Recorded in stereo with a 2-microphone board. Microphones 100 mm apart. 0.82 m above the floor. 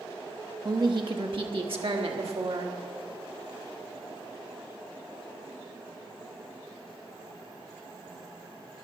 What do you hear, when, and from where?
0.7 s a woman speaking: 45° right (ahead or behind), 0.9 m; by 2.8 s 70° right (ahead or behind), 2 m